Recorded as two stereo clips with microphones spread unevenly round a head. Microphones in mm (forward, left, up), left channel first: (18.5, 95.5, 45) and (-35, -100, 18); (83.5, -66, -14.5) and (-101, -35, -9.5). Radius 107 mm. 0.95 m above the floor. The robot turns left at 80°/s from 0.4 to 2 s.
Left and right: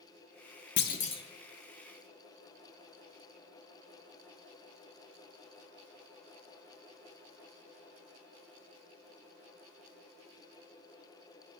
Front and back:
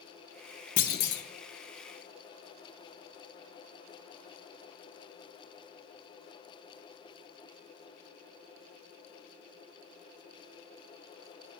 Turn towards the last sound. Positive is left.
turn(degrees=-55)